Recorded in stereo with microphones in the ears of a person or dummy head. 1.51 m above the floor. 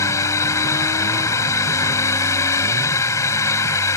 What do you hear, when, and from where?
0.0 s a drone: 15° left (ahead or behind)